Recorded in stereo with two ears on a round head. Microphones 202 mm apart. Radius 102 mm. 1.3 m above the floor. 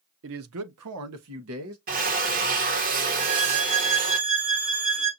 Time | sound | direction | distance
0.2 | a man speaking | 60° right (ahead or behind) | 0.7 m
1.9 | a drill | 40° right (ahead or behind) | 1.3 m
3.2 | a violin | 70° right (ahead or behind) | 3 m